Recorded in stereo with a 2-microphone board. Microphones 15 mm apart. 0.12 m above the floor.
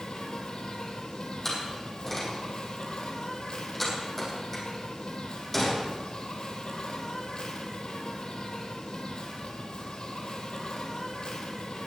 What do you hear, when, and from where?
0.0 s an insect: 60° left (ahead or behind), 1.8 m
1.4 s a door slam: 5° left (ahead or behind), 4 m